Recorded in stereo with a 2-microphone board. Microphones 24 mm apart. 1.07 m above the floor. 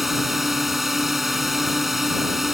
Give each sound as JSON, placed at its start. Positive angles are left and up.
{"t": 0.0, "sound": "a drone", "side_deg": -10}